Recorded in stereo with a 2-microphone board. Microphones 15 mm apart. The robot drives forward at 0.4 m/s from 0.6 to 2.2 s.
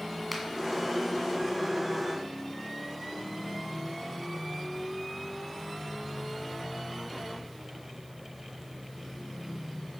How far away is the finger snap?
About 1.9 m.